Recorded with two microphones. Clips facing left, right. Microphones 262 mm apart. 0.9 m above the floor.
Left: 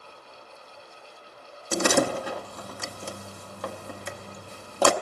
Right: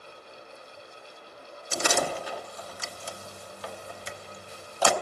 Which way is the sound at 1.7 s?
60° left (ahead or behind).